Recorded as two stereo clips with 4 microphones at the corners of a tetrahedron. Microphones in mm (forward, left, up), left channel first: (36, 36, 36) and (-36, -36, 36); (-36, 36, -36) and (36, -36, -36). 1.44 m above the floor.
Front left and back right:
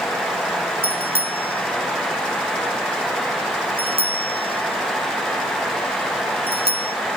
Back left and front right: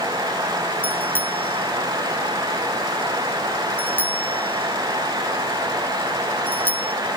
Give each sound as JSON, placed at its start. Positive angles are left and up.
{"t": 0.8, "sound": "a bicycle bell", "azimuth_deg": -150}